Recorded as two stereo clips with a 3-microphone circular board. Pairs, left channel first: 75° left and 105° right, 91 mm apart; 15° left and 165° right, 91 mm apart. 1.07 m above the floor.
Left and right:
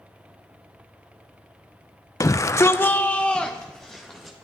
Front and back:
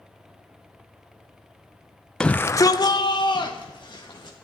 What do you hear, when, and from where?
2.2 s a shout: 95° left, 0.6 m; by 4.4 s 15° right, 1.8 m